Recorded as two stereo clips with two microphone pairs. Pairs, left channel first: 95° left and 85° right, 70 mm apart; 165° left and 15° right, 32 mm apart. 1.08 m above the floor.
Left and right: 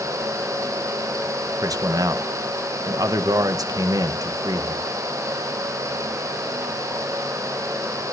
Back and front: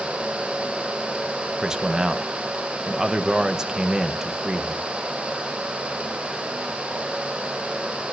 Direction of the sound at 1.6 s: 80° right.